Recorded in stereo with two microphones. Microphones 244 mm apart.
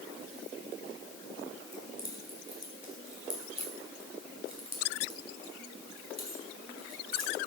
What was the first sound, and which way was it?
Keys jangling, 80° left.